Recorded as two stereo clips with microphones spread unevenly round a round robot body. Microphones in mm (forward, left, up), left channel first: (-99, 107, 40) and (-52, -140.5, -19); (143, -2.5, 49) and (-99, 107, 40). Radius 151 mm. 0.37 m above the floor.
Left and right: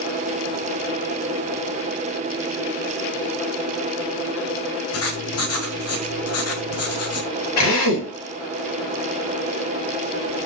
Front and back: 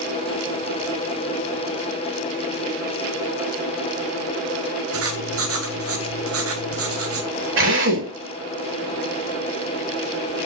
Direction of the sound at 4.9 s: 130° left.